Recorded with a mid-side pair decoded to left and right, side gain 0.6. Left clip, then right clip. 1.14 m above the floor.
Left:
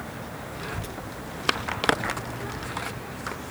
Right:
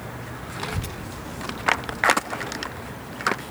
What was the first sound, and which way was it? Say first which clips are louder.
A child speaking: right 4 dB; 40° right.